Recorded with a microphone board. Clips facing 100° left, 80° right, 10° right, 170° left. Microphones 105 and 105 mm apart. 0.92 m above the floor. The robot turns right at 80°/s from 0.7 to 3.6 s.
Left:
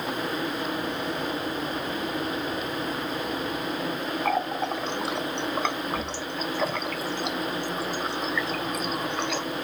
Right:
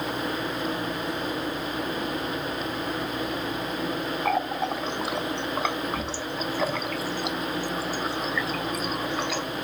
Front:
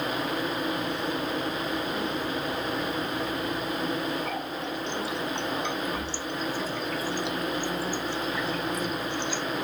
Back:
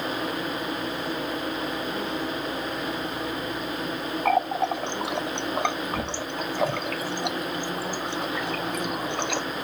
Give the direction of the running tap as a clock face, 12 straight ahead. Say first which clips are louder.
Even, back 9 dB; 6 o'clock.